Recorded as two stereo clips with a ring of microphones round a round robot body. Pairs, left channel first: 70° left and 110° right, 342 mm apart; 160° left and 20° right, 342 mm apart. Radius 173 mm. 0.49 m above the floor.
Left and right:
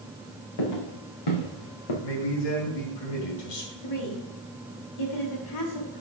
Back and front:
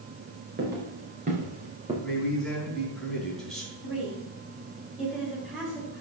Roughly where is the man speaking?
Left.